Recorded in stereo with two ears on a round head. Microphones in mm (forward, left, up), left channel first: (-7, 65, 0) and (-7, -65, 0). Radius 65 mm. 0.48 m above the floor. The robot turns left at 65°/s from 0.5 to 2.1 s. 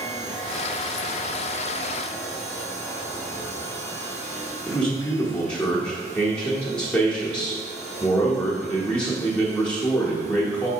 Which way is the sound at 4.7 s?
10° left (ahead or behind).